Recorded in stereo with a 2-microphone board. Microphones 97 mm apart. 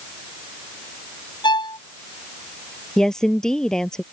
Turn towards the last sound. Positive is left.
turn(degrees=5)  # may be behind; listen again after turning